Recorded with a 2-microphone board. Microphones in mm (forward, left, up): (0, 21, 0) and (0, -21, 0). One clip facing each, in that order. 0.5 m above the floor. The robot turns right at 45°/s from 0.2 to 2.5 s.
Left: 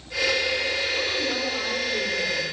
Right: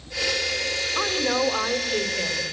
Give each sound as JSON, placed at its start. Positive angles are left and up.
{"t": 0.9, "sound": "a woman speaking", "azimuth_deg": -90, "distance_m": 2.5}